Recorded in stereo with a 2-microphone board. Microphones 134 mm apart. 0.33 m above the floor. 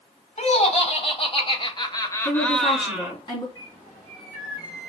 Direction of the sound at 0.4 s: 50° left (ahead or behind).